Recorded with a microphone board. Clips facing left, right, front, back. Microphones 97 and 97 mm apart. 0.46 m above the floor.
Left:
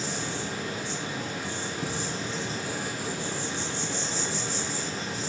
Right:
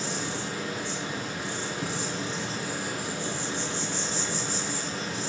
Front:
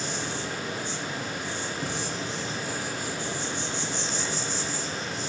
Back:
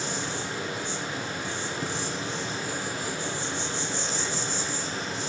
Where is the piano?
No piano in this recording.